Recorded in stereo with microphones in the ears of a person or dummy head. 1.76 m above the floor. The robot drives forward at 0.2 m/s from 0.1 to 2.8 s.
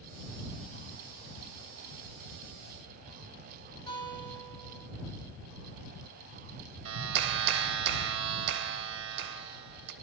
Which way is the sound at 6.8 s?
70° right (ahead or behind).